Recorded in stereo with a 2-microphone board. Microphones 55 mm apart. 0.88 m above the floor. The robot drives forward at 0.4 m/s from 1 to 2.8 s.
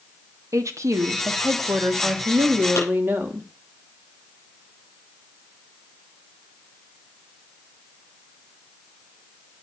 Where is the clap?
60° left (ahead or behind), 7 m.